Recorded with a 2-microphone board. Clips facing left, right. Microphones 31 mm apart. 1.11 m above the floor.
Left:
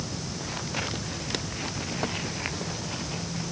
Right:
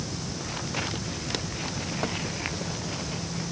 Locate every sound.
Only background noise.